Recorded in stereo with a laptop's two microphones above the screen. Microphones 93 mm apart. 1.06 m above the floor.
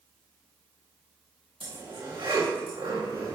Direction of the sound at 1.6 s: 75° right (ahead or behind).